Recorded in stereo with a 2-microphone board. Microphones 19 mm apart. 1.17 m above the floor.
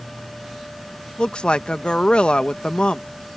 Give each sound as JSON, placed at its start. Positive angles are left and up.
{"t": 1.2, "sound": "a woman speaking", "side_deg": 70}